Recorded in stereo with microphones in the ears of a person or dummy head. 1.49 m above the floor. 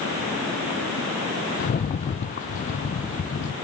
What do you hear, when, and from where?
1.6 s a rattle: 40° left (ahead or behind), 0.7 m